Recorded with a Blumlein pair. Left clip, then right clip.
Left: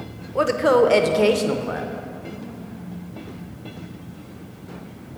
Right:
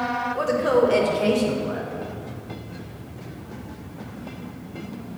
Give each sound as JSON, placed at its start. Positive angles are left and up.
{"t": 0.3, "sound": "a woman speaking", "azimuth_deg": 20, "distance_m": 0.7}